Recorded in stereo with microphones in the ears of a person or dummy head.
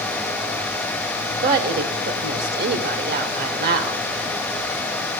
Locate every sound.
1.4 s a woman speaking: 50° right (ahead or behind), 1.0 m